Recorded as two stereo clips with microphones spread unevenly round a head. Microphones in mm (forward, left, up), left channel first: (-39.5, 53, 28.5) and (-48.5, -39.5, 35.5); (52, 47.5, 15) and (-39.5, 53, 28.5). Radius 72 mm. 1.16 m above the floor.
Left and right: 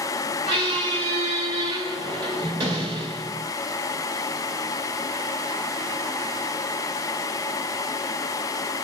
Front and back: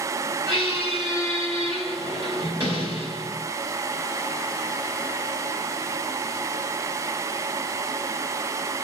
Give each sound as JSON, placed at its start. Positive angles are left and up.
{"t": 0.5, "sound": "a squeak", "azimuth_deg": -115, "distance_m": 1.7}